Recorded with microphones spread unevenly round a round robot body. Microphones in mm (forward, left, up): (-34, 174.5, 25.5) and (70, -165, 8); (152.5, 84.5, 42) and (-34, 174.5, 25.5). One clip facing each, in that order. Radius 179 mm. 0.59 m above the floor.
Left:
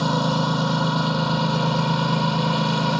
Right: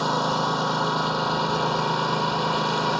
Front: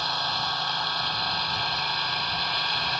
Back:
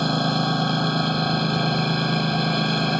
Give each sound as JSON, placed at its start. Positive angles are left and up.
{"t": 0.0, "sound": "a lawn mower", "azimuth_deg": 115}